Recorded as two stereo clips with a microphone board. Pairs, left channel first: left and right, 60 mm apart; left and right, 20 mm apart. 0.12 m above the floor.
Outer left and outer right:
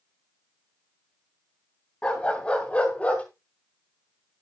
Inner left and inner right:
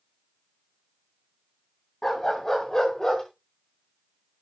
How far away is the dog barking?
About 5.5 m.